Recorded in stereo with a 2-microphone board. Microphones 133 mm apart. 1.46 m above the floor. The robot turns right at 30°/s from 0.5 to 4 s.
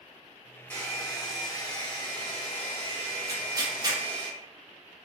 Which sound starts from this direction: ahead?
A hair dryer, at 0.7 s.